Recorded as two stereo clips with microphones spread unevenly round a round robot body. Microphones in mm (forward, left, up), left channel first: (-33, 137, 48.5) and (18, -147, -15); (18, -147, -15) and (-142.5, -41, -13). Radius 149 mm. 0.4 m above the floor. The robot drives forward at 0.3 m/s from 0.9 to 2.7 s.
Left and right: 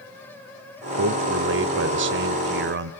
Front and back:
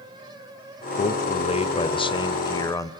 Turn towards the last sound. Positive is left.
turn(degrees=-100)